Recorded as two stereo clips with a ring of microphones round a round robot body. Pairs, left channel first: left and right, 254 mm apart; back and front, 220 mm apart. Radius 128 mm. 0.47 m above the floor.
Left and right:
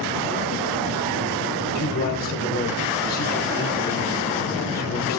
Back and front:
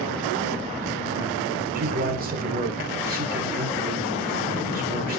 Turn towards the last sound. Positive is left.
turn(degrees=40)